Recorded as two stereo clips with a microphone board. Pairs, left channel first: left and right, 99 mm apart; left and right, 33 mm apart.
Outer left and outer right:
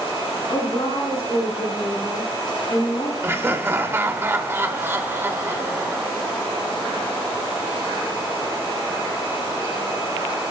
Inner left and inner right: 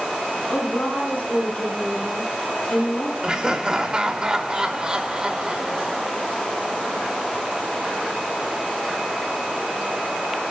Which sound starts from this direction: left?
A woman speaking, at 0.5 s.